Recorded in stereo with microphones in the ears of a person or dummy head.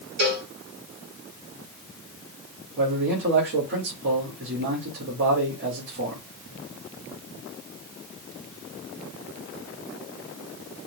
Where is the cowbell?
55° right (ahead or behind), 3.5 m.